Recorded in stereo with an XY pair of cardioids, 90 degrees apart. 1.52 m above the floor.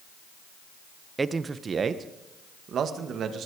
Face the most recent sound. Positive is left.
turn(degrees=-70)